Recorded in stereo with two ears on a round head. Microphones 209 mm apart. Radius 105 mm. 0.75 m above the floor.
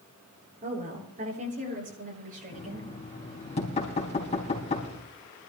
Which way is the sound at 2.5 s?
25° left (ahead or behind).